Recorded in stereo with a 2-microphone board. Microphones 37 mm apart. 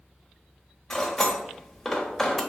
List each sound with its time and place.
0.9 s cutlery clinking: 15° left (ahead or behind), 0.7 m